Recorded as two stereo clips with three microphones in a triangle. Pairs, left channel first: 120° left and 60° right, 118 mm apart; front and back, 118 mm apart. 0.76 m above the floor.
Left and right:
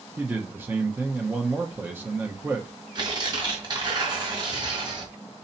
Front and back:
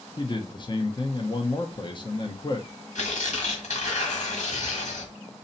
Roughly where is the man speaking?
Ahead.